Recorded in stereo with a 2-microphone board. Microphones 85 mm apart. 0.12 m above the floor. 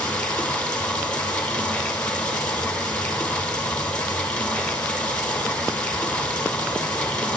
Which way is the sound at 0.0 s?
15° left (ahead or behind).